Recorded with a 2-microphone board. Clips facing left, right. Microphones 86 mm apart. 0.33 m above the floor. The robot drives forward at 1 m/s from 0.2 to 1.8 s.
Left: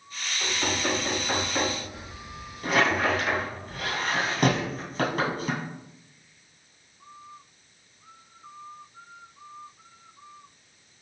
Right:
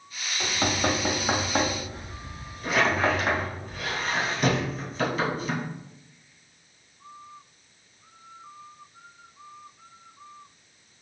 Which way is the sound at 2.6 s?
45° left (ahead or behind).